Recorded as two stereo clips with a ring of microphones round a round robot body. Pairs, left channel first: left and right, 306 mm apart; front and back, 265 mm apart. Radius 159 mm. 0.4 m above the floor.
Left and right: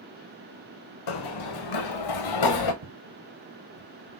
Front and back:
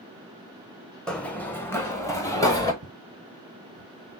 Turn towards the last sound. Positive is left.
turn(degrees=-100)